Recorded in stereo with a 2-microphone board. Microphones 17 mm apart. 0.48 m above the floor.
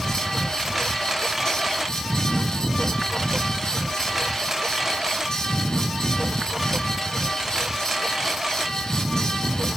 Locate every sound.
0.0 s a lawn mower: 15° right (ahead or behind); by 9.8 s 25° right (ahead or behind)